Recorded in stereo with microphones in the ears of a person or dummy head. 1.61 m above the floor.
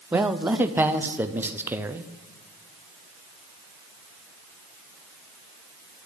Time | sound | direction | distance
0.1 | a man speaking | 10° right (ahead or behind) | 0.7 m